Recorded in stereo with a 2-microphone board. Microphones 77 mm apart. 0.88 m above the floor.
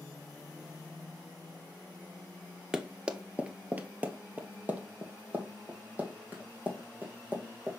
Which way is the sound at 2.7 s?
10° right (ahead or behind).